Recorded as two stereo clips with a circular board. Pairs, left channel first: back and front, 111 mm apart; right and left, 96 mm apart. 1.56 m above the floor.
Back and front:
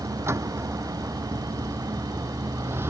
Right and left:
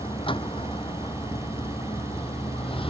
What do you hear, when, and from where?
0.0 s a vehicle: 65° right; by 2.9 s 70° right